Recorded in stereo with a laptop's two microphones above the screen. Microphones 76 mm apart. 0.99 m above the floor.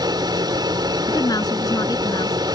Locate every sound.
0.0 s a machine running: 70° right (ahead or behind)
1.1 s a woman speaking: 55° left (ahead or behind)